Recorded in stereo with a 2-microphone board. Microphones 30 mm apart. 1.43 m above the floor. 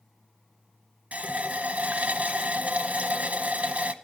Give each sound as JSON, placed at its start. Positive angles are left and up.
{"t": 1.1, "sound": "a running tap", "side_deg": -50, "distance_m": 0.7}